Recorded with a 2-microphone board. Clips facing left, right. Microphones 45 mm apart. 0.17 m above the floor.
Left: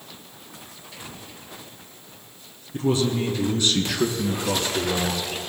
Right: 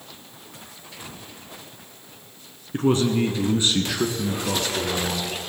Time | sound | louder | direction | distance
2.7 | a man speaking | right 2 dB | 50° right (ahead or behind) | 1.9 m